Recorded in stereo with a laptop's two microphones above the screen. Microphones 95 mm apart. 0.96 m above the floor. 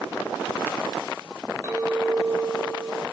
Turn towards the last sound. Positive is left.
turn(degrees=-30)  # may be behind; listen again after turning